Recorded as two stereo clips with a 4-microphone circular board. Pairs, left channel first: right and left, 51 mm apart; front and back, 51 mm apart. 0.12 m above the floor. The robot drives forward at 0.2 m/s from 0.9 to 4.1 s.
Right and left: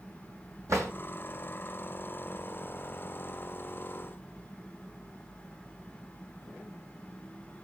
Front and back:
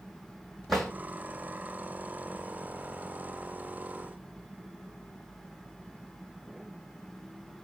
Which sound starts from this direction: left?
A drawer, at 0.7 s.